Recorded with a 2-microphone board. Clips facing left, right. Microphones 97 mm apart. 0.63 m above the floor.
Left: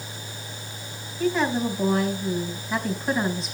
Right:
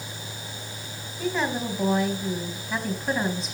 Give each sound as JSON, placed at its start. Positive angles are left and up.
{"t": 1.2, "sound": "a woman speaking", "side_deg": 0, "distance_m": 3.5}